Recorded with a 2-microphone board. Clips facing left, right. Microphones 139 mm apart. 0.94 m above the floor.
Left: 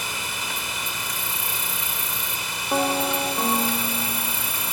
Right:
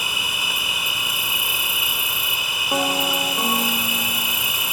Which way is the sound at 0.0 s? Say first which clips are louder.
Right 1 dB; 10° right (ahead or behind).